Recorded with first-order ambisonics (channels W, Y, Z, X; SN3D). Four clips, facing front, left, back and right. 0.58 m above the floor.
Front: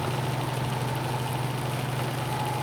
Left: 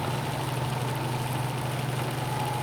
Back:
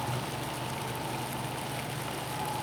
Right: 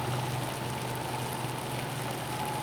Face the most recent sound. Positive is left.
No sound to turn to.